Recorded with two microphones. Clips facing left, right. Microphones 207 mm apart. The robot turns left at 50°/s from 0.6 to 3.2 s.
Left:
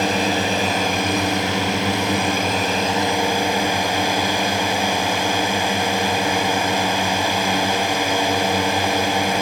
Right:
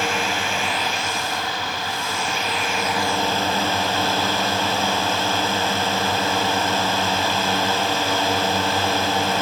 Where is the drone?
145° left; by 9.4 s 15° left.